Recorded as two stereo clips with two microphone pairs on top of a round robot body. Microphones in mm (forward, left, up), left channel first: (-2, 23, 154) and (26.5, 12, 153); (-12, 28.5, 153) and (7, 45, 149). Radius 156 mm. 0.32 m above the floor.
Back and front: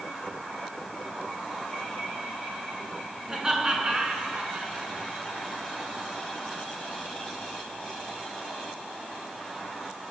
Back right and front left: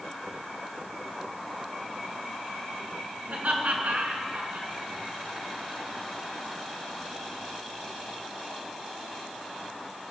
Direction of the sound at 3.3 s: 45° left.